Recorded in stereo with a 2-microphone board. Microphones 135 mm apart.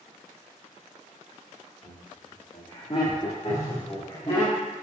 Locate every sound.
1.8 s laughter: 45° left (ahead or behind), 1.6 m; by 4.5 s 35° left (ahead or behind), 1.7 m
3.5 s a phone buzzing: 30° left (ahead or behind), 1.3 m